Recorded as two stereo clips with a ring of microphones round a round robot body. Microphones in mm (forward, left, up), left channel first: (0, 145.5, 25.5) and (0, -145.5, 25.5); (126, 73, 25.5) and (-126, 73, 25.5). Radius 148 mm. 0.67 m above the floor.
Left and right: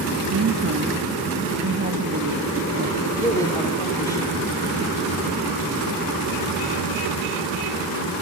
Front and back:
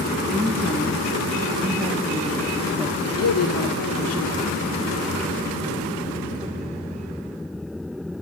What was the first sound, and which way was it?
A woman speaking, 90° right.